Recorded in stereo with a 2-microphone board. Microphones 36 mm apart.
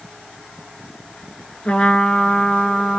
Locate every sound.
1.6 s a trumpet: 30° left (ahead or behind), 1.4 m